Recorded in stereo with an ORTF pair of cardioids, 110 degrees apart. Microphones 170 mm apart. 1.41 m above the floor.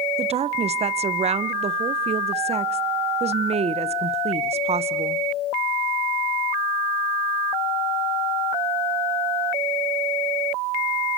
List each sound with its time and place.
0.2 s a woman speaking: 40° right, 1.1 m